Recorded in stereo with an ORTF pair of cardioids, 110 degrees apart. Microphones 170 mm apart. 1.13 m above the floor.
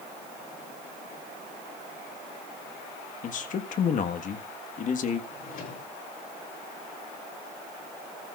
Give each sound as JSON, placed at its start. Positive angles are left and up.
{"t": 3.2, "sound": "a man speaking", "azimuth_deg": 50, "distance_m": 1.6}
{"t": 5.3, "sound": "a drawer", "azimuth_deg": 50, "distance_m": 9.5}